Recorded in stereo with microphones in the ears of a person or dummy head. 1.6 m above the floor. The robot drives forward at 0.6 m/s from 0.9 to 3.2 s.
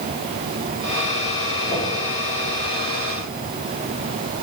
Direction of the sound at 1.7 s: 35° left (ahead or behind).